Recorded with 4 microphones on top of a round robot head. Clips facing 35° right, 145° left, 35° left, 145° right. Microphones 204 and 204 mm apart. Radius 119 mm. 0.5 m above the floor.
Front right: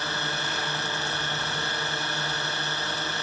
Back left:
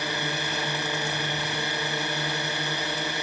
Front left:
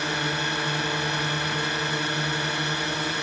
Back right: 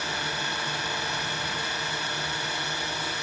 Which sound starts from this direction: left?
A drone, at 0.0 s.